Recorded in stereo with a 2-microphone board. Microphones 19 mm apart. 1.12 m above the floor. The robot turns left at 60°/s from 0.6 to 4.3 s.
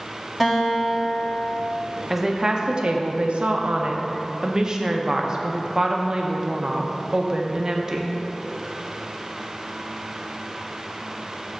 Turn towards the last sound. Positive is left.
turn(degrees=-145)